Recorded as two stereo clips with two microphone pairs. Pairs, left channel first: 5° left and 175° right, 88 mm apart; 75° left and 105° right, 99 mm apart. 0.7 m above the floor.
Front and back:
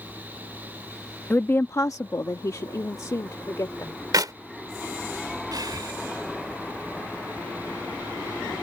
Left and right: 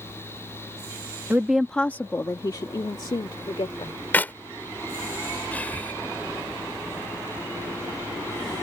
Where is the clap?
145° left.